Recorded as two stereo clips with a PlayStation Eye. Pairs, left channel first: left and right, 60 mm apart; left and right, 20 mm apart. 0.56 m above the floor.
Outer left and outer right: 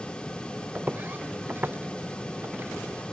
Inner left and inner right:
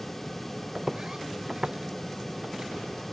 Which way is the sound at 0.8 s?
25° right (ahead or behind).